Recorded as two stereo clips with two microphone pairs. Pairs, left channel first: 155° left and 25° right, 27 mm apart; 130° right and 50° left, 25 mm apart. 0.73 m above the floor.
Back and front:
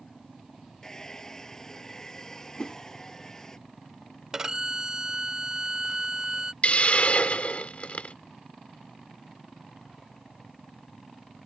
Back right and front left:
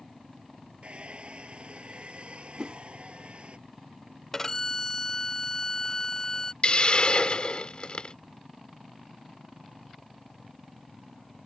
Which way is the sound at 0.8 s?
85° left.